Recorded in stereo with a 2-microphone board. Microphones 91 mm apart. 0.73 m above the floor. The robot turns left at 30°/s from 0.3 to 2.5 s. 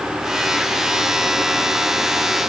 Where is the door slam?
No door slam in this recording.